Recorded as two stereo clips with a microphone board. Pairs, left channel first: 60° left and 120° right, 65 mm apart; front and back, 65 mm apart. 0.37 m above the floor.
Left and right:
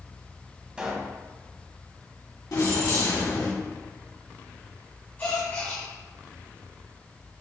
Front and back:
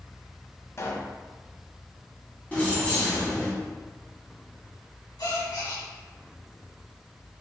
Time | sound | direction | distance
0.8 | a pop | 50° right | 0.7 m
2.5 | keys jangling | 65° left | 1.7 m
5.2 | a gasp | straight ahead | 1.6 m